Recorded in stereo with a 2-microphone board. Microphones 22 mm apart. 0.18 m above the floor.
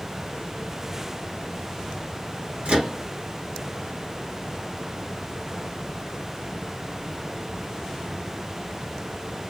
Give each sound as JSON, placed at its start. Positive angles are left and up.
{"t": 2.6, "sound": "a microwave", "side_deg": -65, "distance_m": 2.5}